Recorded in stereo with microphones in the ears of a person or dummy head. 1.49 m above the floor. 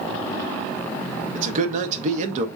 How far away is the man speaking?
About 0.7 m.